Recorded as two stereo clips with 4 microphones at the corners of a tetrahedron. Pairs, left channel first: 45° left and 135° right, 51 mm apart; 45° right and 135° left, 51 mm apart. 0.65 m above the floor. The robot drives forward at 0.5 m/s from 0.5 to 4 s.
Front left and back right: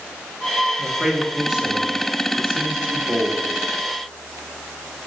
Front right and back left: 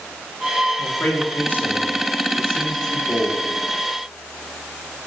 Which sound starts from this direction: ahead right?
A man speaking, at 0.8 s.